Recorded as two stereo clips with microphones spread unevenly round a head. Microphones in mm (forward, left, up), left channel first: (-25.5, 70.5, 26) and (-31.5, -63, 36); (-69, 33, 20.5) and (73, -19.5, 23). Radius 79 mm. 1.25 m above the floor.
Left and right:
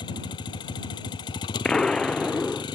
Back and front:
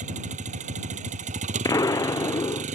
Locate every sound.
0.0 s a vehicle: 25° left
1.6 s an explosion: 155° left